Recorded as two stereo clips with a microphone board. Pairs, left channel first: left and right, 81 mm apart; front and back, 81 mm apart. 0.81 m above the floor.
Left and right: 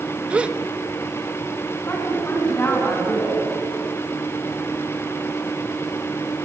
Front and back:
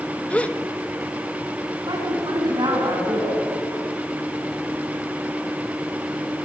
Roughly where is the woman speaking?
Behind left.